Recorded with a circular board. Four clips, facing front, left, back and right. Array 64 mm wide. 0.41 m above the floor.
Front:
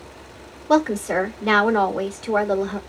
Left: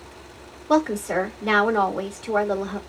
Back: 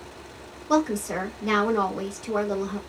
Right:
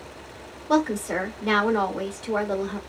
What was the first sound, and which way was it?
A woman speaking, straight ahead.